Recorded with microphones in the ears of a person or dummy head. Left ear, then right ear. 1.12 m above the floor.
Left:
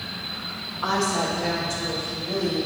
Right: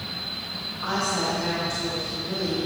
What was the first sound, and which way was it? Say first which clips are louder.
A woman speaking: left 2 dB; 25° left (ahead or behind).